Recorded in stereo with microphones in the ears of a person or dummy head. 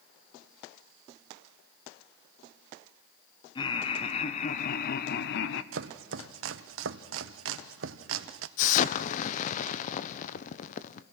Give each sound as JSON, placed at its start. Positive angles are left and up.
{"t": 3.5, "sound": "laughter", "side_deg": 25, "distance_m": 1.5}
{"t": 5.7, "sound": "chopping", "side_deg": -70, "distance_m": 0.8}
{"t": 8.6, "sound": "an explosion", "side_deg": 45, "distance_m": 0.7}